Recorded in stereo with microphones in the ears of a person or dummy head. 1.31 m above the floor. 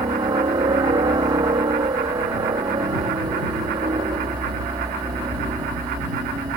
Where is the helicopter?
20° right (ahead or behind).